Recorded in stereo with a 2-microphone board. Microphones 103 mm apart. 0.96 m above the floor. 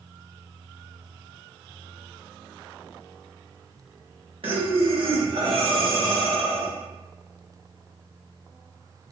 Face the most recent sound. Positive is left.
turn(degrees=-60)  # may be behind; listen again after turning